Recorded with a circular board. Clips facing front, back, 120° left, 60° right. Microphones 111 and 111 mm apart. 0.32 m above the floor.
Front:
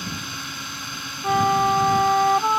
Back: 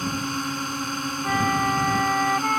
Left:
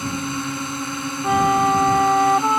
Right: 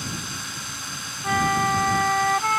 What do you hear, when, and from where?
0.0 s a drone: 140° left
1.2 s a flute: 60° left